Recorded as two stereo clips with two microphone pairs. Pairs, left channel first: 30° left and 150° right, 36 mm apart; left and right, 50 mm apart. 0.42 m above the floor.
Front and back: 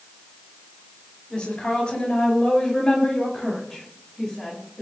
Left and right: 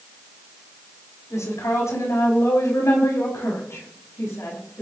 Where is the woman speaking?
85° left, 6.5 m; by 4.8 s 110° left, 6 m.